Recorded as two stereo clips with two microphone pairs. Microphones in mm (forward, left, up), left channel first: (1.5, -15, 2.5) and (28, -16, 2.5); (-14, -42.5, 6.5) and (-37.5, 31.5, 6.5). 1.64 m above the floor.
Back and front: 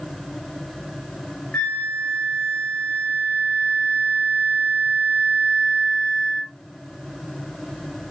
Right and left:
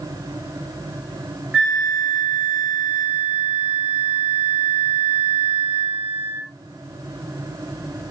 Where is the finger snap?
No finger snap in this recording.